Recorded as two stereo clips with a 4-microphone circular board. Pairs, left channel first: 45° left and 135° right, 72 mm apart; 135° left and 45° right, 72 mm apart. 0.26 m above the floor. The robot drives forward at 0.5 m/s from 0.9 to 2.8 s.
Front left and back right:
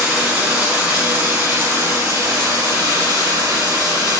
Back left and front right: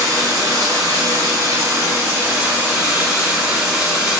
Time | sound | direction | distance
0.0 | running water | 65° right | 1.1 m